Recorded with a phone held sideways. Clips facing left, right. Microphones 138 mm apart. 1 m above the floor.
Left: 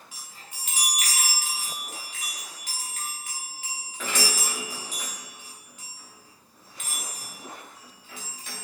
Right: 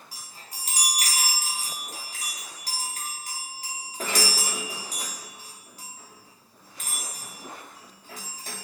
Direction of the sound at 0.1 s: 35° right (ahead or behind).